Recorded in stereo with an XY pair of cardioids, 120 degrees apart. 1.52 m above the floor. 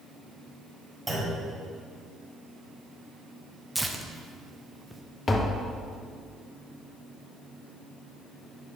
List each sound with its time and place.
1.1 s a clunk: 10° right, 2.5 m
3.8 s tearing paper: 5° right, 0.6 m
5.3 s tapping: 25° left, 0.7 m